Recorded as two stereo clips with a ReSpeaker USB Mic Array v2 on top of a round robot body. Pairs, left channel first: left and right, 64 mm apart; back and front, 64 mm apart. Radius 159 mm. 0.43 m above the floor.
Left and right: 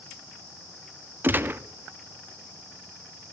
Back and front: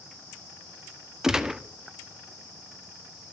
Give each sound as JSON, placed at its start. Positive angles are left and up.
{"t": 1.2, "sound": "a gunshot", "azimuth_deg": -75, "distance_m": 1.5}